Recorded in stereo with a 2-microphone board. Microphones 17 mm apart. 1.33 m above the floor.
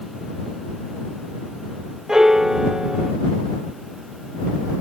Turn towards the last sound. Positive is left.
turn(degrees=-40)  # may be behind; listen again after turning